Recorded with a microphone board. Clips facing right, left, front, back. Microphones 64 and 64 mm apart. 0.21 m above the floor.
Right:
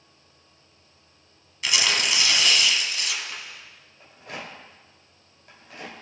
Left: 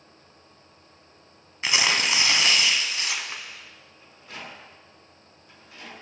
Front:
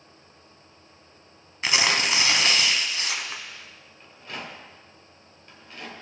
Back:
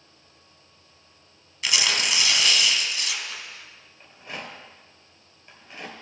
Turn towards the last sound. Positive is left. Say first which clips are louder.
# right 3 dB, even
turn(degrees=-110)